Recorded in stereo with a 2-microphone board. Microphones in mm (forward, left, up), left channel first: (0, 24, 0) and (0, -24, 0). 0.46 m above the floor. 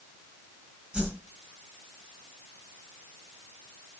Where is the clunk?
No clunk in this recording.